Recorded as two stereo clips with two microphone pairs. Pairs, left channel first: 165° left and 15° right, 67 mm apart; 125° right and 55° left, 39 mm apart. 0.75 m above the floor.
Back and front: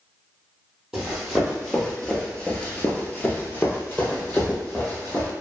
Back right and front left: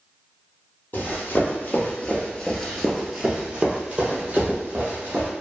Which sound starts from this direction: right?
Running footsteps, at 0.9 s.